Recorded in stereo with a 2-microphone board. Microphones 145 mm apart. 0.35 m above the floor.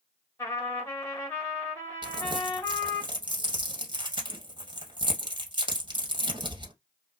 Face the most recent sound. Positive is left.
turn(degrees=-35)  # may be behind; listen again after turning